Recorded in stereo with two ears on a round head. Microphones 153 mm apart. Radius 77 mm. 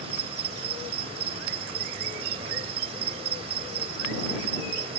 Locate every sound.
0.0 s an insect: 35° right (ahead or behind)